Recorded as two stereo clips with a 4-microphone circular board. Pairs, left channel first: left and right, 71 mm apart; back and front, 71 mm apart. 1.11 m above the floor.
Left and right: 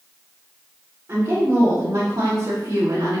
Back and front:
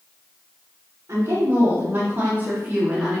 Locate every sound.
1.1 s a woman speaking: 45° right, 2 m; by 3.2 s 90° right, 1.6 m